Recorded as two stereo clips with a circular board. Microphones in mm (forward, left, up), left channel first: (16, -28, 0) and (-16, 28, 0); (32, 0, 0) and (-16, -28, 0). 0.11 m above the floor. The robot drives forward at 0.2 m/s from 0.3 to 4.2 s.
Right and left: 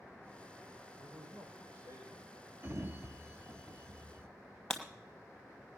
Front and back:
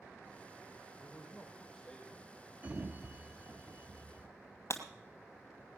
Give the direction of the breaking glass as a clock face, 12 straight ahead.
11 o'clock.